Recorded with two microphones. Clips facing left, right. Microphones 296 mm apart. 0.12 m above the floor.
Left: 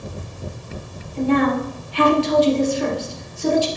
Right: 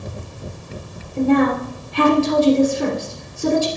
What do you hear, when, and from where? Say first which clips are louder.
1.2 s a woman speaking: right 2 dB; 55° right (ahead or behind), 2.5 m